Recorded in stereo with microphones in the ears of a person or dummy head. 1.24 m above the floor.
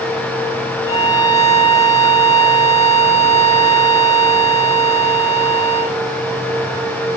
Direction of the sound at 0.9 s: 15° left (ahead or behind).